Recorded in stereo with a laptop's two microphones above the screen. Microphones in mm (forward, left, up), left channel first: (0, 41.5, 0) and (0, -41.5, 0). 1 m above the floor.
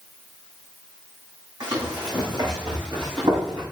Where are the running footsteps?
50° right (ahead or behind), 4 m; by 3.6 s 65° right (ahead or behind), 4.5 m.